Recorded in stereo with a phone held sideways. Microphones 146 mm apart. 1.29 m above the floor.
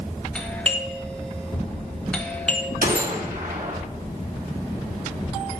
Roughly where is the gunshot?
Right.